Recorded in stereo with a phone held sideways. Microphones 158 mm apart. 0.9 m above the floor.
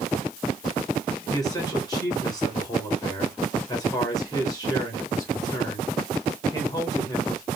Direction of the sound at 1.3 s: 25° left (ahead or behind).